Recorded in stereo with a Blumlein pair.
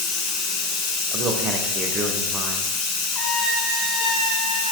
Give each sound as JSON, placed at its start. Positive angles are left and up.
{"t": 0.0, "sound": "running water", "azimuth_deg": 35, "distance_m": 0.8}
{"t": 1.1, "sound": "a man speaking", "azimuth_deg": -25, "distance_m": 0.5}
{"t": 3.1, "sound": "a trumpet", "azimuth_deg": 25, "distance_m": 0.7}